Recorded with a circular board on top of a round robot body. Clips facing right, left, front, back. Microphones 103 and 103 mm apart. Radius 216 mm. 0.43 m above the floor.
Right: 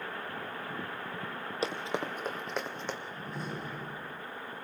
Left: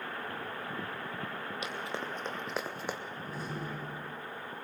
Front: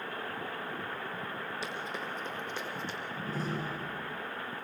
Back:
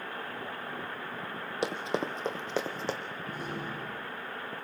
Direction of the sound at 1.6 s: 150° right.